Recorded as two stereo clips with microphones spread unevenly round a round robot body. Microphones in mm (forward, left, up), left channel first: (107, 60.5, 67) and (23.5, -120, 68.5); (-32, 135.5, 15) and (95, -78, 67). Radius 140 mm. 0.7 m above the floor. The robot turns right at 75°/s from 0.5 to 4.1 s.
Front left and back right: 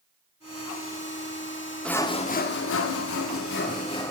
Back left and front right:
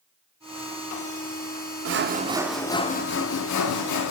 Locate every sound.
1.9 s sawing: 20° right, 0.7 m; by 4.1 s 145° left, 0.7 m